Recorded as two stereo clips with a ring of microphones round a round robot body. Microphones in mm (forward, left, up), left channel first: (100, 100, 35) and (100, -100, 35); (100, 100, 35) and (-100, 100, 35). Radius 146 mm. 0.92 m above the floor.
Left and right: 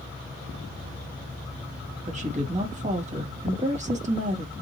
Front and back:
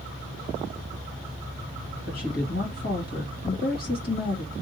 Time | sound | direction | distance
2.1 | a woman speaking | 40° right | 1.5 m